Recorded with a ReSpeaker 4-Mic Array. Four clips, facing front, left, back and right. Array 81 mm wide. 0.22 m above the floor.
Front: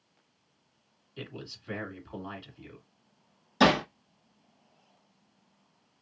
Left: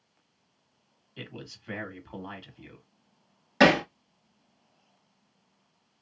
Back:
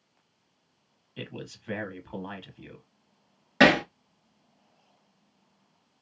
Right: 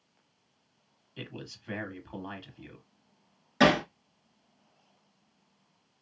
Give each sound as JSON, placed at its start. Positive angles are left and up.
{"t": 1.2, "sound": "a man speaking", "azimuth_deg": 180, "distance_m": 1.4}
{"t": 3.6, "sound": "hammering", "azimuth_deg": 160, "distance_m": 1.4}